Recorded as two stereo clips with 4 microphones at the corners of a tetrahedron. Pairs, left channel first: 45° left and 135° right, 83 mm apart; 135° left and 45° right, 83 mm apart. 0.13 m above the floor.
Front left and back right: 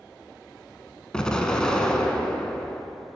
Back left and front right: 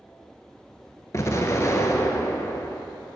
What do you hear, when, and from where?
1.1 s an explosion: 120° left, 0.7 m